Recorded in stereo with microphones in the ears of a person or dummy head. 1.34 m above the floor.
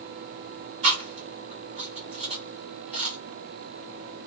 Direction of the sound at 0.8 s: 35° right (ahead or behind).